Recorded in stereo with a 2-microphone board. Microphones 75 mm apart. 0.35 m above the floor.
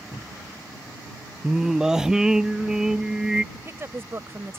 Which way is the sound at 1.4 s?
5° right (ahead or behind).